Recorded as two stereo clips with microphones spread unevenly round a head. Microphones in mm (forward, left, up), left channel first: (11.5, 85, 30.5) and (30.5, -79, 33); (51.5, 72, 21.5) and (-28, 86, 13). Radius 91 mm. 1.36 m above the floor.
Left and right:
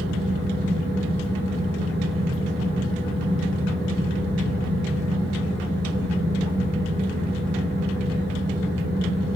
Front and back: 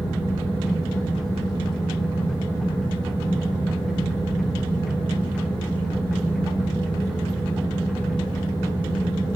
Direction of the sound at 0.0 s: 110° right.